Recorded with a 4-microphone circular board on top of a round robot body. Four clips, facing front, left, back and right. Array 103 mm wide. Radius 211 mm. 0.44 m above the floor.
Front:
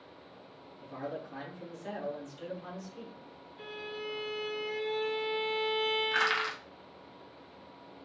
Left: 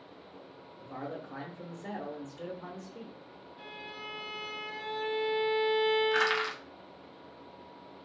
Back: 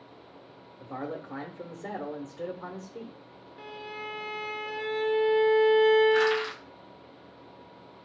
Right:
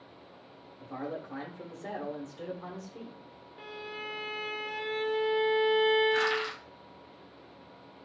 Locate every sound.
0.8 s a man speaking: 170° right, 1.7 m
3.6 s a violin: 150° right, 2.5 m
6.1 s crushing: 50° left, 3 m